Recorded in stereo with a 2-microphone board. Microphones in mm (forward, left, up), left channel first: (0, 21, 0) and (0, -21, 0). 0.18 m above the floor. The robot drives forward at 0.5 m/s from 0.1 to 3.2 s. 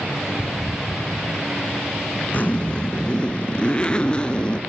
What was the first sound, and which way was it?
A zipper, 40° left (ahead or behind).